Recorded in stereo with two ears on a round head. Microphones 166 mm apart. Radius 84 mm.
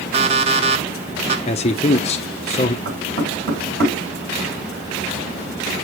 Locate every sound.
0.1 s an alarm clock: 35° right (ahead or behind), 1.0 m
1.5 s a man speaking: 35° left (ahead or behind), 0.6 m
2.9 s knocking: 60° right (ahead or behind), 5.5 m